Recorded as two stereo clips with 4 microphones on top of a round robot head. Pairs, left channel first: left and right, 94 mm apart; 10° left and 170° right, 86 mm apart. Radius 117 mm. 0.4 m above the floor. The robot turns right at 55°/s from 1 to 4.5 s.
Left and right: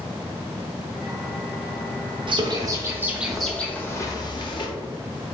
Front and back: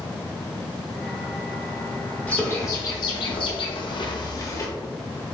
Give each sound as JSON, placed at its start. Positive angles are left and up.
{"t": 2.3, "sound": "a bird", "azimuth_deg": -60, "distance_m": 1.0}